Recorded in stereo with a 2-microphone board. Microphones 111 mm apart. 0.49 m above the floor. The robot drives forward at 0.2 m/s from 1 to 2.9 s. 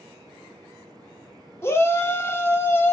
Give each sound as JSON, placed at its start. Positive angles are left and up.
{"t": 1.6, "sound": "a shout", "side_deg": 25, "distance_m": 0.7}